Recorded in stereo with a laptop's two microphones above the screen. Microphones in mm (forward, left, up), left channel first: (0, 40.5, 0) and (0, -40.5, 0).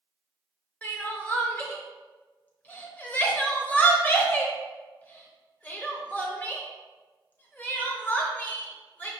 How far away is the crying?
About 0.8 m.